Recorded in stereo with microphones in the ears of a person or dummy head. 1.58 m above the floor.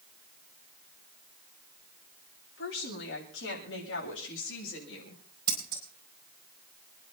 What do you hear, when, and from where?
2.6 s a woman speaking: 80° left, 8.5 m; by 5.2 s 85° left, 6.5 m
5.5 s scissors: 25° right (ahead or behind), 5 m